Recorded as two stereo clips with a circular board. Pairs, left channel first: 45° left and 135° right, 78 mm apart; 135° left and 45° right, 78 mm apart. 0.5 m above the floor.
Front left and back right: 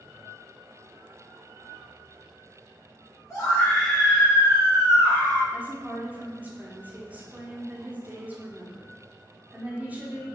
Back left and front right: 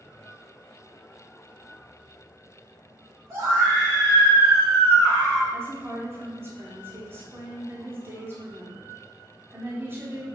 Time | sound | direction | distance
3.3 | a scream | straight ahead | 1.8 m
5.5 | a woman speaking | 80° right | 0.8 m